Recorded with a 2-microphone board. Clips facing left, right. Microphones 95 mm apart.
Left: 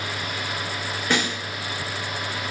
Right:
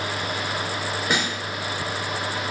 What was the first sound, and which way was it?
A snare drum, 10° right (ahead or behind).